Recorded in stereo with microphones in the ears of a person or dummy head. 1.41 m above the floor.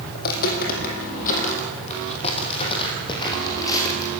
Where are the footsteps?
55° left (ahead or behind), 4 m; by 4.1 s 15° left (ahead or behind), 4.5 m.